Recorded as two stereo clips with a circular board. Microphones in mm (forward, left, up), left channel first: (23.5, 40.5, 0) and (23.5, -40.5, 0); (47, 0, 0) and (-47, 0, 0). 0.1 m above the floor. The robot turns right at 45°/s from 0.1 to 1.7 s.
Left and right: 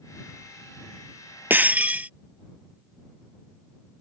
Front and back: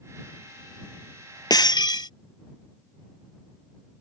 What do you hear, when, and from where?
1.5 s breaking glass: 30° right; by 2.1 s 20° right